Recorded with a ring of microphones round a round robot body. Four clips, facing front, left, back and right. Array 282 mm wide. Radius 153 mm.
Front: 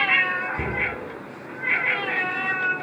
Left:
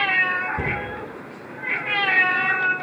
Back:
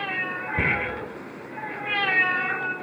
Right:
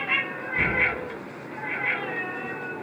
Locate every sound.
0.6 s a cupboard door: 160° left, 1.2 m